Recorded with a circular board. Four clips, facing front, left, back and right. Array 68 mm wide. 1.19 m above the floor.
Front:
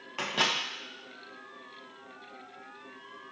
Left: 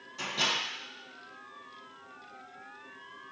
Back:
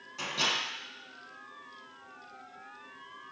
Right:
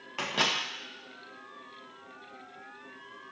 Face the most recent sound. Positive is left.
turn(degrees=-50)